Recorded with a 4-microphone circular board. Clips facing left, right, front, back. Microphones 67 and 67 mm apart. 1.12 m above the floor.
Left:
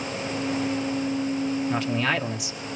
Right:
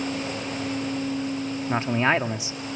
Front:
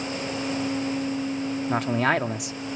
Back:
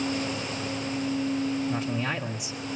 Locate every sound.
1.7 s a man speaking: 25° right, 1.9 m